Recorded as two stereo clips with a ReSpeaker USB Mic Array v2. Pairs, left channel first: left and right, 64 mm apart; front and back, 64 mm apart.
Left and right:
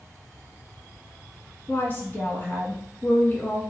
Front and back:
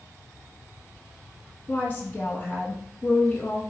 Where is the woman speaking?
60° left, 1.1 m.